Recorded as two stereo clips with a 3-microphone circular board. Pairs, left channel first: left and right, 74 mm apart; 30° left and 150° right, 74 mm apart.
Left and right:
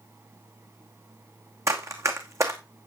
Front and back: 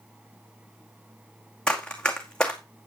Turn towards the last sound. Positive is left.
turn(degrees=-50)